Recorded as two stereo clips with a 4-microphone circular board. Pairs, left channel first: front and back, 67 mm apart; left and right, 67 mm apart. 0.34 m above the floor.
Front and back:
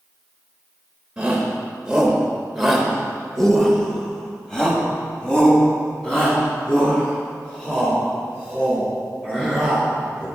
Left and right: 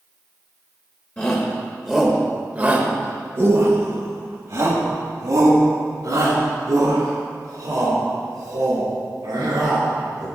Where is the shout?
130° left, 1.1 m; by 10.2 s 75° right, 5 m.